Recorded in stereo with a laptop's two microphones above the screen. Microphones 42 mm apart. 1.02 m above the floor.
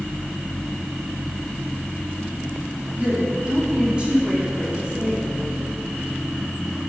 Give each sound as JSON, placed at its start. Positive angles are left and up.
{"t": 3.0, "sound": "a woman speaking", "side_deg": -25, "distance_m": 3.0}